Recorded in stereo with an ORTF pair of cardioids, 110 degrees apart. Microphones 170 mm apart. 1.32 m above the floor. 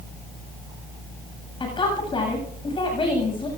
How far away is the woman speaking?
About 8 m.